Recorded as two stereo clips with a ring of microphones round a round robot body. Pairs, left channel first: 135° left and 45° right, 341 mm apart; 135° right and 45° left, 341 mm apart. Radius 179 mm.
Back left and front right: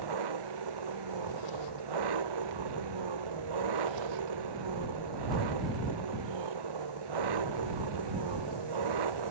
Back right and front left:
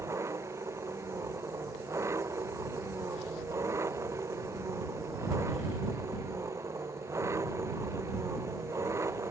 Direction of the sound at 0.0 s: 35° right.